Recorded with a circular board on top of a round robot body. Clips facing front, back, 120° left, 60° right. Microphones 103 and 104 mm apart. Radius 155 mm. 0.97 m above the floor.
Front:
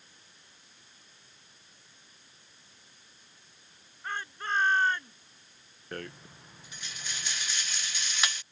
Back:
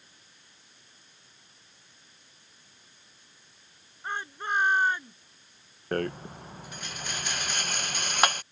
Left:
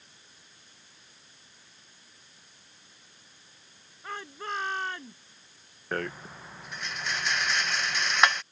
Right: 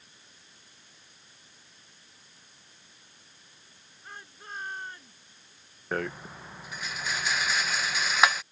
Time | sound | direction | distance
4.0 | a shout | 105° left | ?
5.9 | a rattle | 145° right | ?